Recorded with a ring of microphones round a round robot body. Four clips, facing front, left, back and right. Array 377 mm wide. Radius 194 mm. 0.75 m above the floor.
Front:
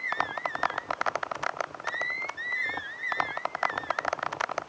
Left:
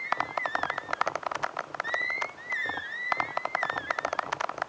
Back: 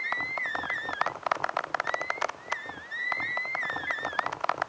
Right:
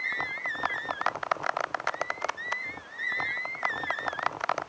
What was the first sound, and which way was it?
Only background noise.